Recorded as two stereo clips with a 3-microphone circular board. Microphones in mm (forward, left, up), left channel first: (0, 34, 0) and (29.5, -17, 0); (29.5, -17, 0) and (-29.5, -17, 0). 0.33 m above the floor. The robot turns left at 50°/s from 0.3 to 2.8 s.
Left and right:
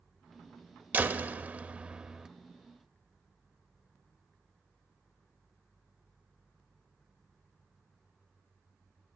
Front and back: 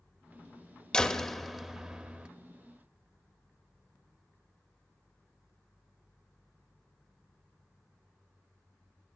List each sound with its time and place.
0.9 s a door slam: 60° right, 0.6 m; by 2.3 s 125° right, 0.6 m